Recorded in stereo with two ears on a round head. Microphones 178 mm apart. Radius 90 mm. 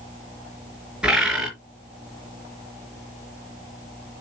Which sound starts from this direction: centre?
A bird, at 1.0 s.